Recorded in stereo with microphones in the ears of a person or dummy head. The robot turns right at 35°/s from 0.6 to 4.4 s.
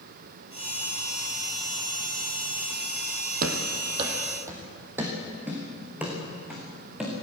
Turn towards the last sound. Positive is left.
turn(degrees=-5)  # may be behind; listen again after turning